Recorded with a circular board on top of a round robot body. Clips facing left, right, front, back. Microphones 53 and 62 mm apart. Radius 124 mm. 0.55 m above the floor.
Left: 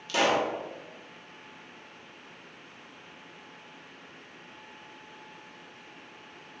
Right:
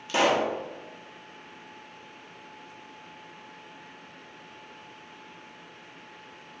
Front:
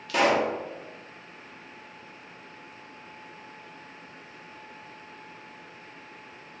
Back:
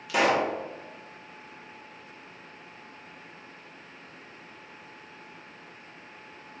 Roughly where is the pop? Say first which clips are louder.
Right 2 dB, front 1 dB; right.